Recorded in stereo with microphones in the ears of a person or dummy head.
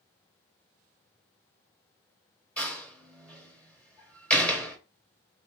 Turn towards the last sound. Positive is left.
turn(degrees=5)  # may be behind; listen again after turning